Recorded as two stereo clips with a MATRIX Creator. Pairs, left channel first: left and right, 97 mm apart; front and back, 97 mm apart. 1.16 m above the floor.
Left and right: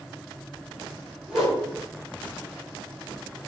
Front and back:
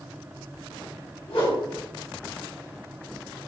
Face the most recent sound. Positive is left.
turn(degrees=-5)